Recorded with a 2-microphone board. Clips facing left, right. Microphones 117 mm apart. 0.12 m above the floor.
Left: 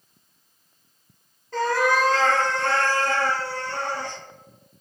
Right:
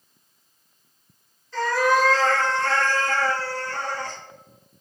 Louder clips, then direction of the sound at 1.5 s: Right 1 dB; 50° left (ahead or behind).